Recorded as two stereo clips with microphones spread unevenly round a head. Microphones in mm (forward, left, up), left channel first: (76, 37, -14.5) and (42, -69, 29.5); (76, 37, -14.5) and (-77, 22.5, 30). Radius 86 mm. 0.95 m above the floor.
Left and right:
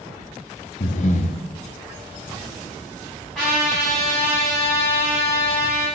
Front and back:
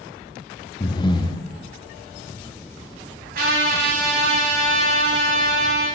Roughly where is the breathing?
Left.